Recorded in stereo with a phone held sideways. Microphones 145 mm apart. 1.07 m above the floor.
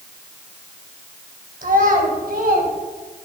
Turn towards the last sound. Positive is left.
turn(degrees=-80)